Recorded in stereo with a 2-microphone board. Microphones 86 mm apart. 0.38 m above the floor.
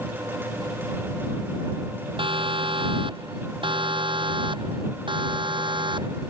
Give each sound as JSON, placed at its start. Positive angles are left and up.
{"t": 2.2, "sound": "a siren", "side_deg": -80}